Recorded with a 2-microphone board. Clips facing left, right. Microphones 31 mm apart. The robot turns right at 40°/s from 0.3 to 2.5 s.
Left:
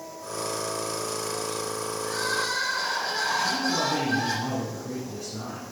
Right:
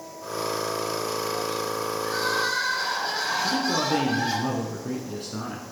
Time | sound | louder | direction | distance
2.0 | crying | right 2 dB | 30° right (ahead or behind) | 4 m
3.4 | a man speaking | right 1 dB | 50° right (ahead or behind) | 1.8 m